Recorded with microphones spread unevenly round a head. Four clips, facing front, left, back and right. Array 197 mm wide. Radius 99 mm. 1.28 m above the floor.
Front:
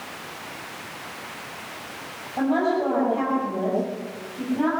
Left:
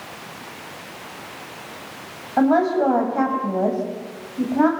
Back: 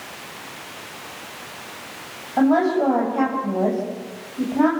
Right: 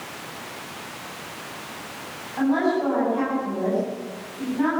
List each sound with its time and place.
2.4 s a woman speaking: 120° left, 8 m